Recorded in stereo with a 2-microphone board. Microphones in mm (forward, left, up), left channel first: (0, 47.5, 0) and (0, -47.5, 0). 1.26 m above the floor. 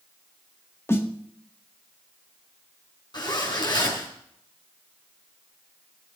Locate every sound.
0.9 s a snare drum: 25° left (ahead or behind), 1.8 m
3.1 s a zipper: 50° left (ahead or behind), 6 m